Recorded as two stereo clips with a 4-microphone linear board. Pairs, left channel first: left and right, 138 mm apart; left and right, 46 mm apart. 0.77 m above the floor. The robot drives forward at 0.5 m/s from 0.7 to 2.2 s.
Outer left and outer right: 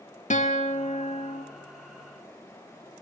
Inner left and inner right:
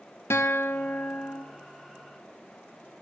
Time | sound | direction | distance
0.3 | a guitar | 60° left (ahead or behind) | 1.7 m